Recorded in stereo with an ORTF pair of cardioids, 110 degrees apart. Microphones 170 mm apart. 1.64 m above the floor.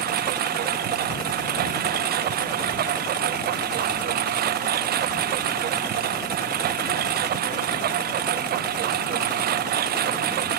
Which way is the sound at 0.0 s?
65° right.